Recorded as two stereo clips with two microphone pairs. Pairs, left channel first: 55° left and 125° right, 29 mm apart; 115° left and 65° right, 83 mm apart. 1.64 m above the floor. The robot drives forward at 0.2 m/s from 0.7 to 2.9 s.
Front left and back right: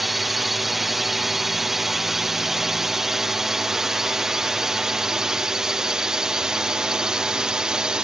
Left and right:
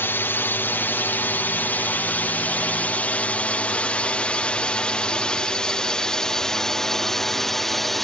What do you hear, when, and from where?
0.0 s a drone: 155° left; by 8.0 s 160° right